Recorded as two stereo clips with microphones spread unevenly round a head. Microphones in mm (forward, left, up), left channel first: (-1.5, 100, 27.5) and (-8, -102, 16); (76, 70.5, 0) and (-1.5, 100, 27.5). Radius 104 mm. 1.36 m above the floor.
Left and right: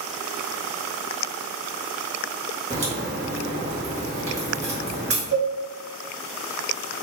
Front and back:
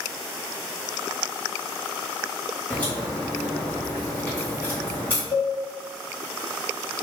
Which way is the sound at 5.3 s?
75° right.